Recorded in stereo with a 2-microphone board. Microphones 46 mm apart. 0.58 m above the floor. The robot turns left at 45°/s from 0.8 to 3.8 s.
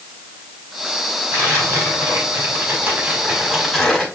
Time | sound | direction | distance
1.3 | tearing paper | 70° right | 5 m